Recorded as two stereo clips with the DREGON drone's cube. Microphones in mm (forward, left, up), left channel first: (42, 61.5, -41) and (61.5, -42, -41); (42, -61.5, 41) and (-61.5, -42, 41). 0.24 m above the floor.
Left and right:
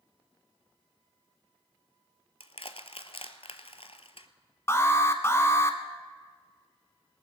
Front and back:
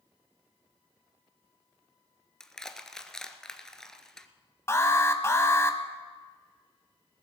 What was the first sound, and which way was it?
Crushing, 75° left.